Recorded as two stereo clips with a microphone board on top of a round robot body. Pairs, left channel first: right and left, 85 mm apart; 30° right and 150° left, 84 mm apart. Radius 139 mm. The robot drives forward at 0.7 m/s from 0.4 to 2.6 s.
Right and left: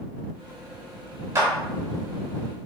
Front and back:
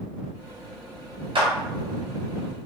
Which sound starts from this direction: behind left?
A clap, at 1.4 s.